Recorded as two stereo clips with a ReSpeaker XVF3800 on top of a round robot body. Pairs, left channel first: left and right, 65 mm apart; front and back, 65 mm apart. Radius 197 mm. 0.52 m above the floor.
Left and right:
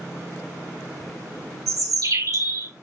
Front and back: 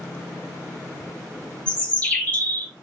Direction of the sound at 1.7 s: 70° right.